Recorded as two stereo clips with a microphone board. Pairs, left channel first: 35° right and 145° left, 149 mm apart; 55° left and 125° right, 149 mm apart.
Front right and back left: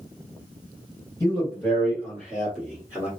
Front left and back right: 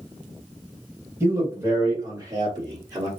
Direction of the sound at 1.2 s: 75° right.